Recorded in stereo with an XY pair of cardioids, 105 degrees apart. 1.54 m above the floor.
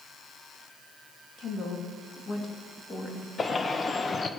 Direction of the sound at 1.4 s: 60° left.